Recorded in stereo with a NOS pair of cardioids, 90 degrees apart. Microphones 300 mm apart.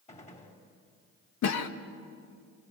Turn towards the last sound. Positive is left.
turn(degrees=65)